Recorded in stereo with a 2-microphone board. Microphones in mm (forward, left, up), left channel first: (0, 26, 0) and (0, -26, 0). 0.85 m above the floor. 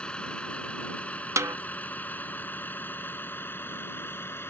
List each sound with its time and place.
0.0 s a vehicle: 20° left (ahead or behind); by 4.5 s 50° left (ahead or behind)
1.4 s a snare drum: 80° right